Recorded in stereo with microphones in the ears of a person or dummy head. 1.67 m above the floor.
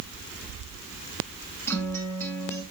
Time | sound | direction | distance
1.7 | a guitar | 10° left (ahead or behind) | 1.9 m